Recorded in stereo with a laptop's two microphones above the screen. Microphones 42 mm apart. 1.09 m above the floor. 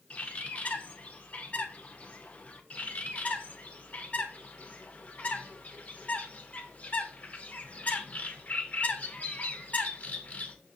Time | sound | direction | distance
0.1 | a bird | 30° left (ahead or behind) | 0.5 m
2.7 | a bird | 35° left (ahead or behind) | 0.5 m